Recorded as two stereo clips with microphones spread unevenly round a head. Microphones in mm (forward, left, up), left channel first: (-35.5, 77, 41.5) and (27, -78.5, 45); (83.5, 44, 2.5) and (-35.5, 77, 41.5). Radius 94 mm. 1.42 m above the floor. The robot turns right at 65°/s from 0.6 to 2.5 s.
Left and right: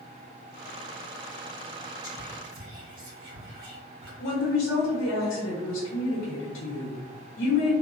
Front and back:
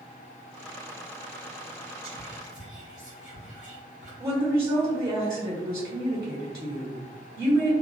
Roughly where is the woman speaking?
Left.